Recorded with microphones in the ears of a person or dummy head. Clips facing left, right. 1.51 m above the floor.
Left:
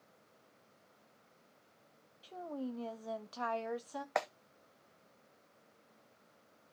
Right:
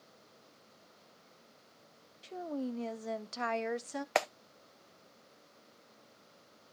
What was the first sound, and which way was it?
A woman speaking, 35° right (ahead or behind).